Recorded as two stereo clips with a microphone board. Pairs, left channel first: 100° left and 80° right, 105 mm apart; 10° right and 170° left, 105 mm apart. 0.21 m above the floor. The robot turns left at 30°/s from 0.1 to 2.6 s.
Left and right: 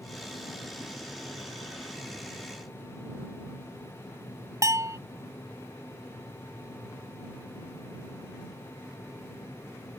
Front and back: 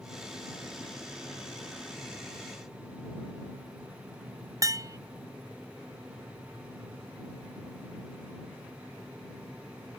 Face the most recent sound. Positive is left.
turn(degrees=-135)